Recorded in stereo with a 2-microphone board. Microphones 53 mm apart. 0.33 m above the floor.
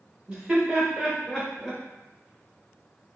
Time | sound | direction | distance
0.3 | laughter | 20° right (ahead or behind) | 1.1 m